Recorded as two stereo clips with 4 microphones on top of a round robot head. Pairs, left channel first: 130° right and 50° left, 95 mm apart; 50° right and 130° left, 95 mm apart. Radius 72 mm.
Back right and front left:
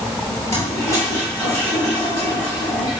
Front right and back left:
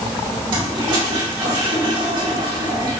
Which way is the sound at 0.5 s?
170° left.